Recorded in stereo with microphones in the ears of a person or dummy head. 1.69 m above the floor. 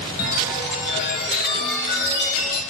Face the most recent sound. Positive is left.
turn(degrees=50)  # may be behind; listen again after turning